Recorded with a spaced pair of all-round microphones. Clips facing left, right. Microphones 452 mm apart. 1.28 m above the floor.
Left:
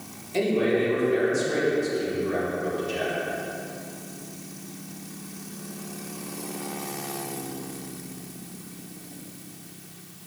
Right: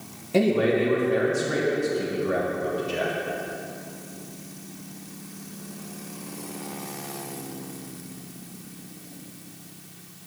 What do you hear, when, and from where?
0.3 s a man speaking: 75° right (ahead or behind), 1.5 m